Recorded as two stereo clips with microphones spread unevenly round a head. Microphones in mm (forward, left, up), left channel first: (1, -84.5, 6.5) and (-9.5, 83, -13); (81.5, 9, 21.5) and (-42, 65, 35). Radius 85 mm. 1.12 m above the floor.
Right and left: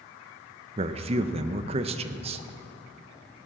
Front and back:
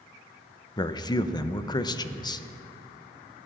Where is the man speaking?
35° left, 0.6 m.